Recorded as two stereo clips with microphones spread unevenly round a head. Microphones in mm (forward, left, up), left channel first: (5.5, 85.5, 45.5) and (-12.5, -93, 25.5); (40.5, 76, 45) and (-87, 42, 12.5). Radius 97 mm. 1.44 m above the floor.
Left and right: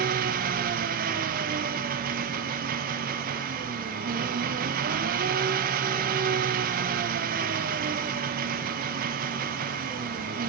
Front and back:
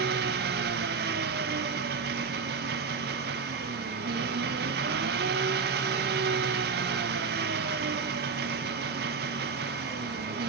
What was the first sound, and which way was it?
An engine running, 140° right.